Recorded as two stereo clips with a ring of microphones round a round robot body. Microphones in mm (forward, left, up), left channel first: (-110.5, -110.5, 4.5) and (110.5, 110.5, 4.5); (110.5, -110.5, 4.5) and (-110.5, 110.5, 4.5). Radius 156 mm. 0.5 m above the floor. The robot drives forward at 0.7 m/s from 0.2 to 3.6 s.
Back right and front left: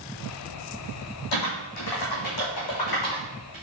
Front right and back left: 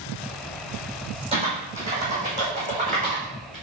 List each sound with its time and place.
1.3 s typing on a keyboard: 155° right, 4.5 m; by 3.5 s 160° right, 6 m